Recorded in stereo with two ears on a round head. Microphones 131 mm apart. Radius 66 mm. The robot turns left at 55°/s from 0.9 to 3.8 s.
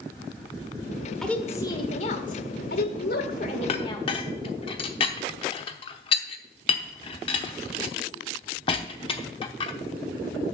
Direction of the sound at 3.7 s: 40° left (ahead or behind).